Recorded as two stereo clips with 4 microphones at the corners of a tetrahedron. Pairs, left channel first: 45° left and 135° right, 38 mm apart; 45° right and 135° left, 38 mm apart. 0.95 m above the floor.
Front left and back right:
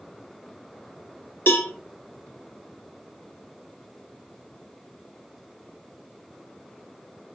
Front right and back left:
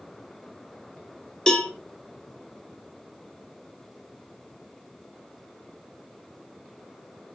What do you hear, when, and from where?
1.5 s a cowbell: 30° left, 1.6 m